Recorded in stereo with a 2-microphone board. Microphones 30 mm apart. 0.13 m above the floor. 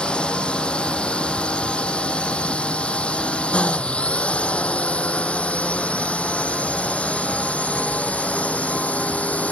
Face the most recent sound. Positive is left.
turn(degrees=50)  # may be behind; listen again after turning